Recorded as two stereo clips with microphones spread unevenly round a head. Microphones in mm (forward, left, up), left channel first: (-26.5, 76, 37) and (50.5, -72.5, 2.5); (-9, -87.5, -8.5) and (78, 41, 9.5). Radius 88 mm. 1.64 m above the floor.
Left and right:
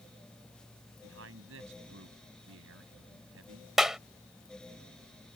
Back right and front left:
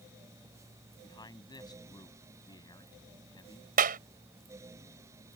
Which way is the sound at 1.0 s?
60° right.